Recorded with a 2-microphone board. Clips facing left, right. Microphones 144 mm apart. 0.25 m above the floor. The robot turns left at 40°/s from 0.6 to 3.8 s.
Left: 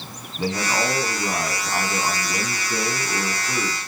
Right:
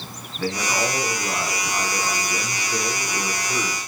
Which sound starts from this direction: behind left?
A man speaking, at 0.4 s.